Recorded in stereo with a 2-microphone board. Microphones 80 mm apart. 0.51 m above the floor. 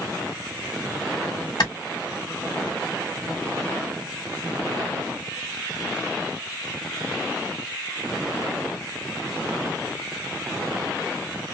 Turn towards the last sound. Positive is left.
turn(degrees=65)  # may be behind; listen again after turning